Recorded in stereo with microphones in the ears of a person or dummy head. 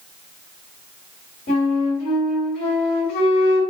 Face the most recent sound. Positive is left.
turn(degrees=55)  # may be behind; listen again after turning